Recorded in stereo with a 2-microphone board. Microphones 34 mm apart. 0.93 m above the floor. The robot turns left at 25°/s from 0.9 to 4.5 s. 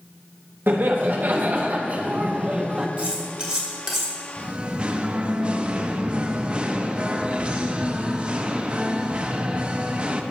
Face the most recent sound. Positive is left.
turn(degrees=-30)  # may be behind; listen again after turning